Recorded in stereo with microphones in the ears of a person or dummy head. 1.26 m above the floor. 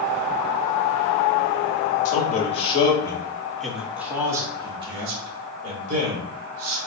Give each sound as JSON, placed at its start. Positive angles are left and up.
{"t": 2.0, "sound": "a man speaking", "side_deg": 50, "distance_m": 1.4}